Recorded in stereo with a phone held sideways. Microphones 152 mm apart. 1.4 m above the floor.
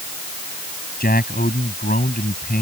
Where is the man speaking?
80° left.